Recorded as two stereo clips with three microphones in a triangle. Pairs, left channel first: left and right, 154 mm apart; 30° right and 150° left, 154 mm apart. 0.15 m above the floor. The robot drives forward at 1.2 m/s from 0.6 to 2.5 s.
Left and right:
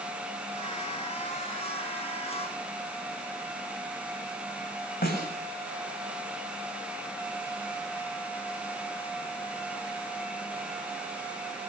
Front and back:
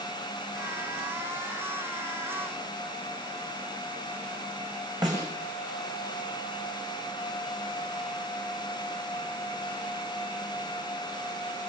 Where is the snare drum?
85° left, 7.5 m.